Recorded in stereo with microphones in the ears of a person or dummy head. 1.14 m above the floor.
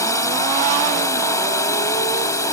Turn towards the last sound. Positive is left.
turn(degrees=20)  # may be behind; listen again after turning